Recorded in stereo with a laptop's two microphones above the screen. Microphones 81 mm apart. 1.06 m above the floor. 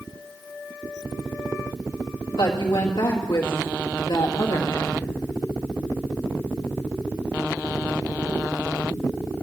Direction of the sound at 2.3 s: 70° left (ahead or behind).